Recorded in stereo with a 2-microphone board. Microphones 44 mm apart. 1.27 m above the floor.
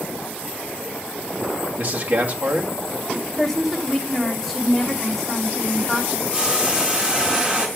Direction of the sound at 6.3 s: 20° right (ahead or behind).